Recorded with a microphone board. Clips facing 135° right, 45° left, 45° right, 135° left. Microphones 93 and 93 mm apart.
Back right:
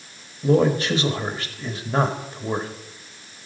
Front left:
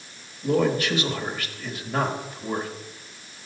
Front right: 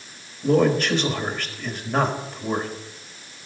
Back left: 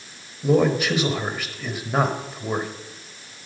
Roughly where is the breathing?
No breathing in this recording.